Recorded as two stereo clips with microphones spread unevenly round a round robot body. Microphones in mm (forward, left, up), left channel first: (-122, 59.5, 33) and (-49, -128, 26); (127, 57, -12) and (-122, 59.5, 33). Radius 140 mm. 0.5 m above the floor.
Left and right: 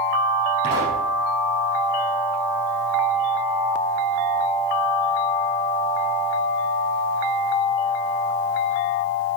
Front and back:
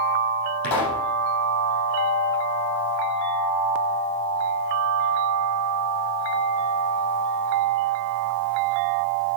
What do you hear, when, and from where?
0.6 s a pop: 5° left, 5.5 m